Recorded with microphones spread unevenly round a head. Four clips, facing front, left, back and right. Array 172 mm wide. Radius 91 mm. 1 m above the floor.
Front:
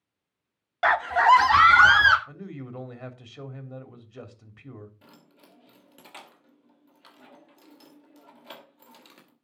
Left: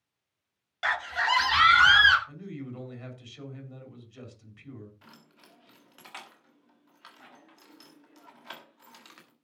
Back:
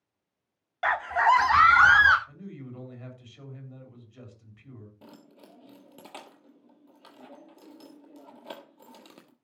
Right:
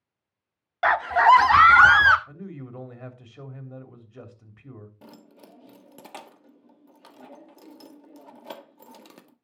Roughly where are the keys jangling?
Behind right.